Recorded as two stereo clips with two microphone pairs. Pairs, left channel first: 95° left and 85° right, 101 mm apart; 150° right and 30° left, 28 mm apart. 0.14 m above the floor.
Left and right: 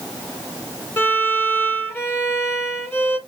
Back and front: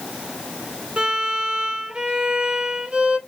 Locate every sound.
1.0 s a violin: 45° left, 1.1 m